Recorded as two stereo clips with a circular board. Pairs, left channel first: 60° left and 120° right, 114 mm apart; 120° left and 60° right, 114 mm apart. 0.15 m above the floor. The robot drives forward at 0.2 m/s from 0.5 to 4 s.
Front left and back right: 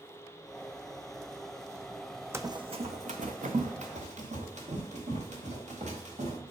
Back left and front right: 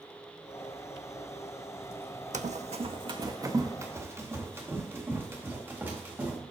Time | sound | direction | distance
2.3 | running footsteps | 50° right | 0.5 m